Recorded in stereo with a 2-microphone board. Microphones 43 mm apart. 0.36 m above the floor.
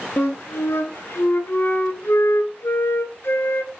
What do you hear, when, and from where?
0.2 s a flute: 80° left, 1.0 m